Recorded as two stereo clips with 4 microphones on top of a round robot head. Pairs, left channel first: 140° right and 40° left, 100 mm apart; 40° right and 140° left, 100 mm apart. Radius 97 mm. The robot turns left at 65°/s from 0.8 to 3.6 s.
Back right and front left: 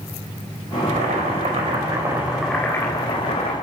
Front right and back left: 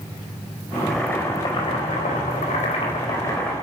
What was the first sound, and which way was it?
Boiling, 50° left.